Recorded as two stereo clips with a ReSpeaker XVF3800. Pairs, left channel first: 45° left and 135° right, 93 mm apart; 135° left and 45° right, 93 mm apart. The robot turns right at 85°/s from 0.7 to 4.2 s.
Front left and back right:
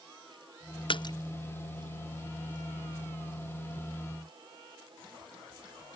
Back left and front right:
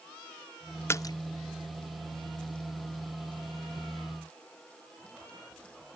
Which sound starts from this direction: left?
A splash, at 0.9 s.